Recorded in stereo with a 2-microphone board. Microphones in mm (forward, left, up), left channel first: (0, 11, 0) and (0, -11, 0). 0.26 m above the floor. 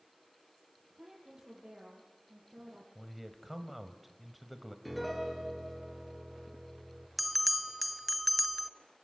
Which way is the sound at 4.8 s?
5° right (ahead or behind).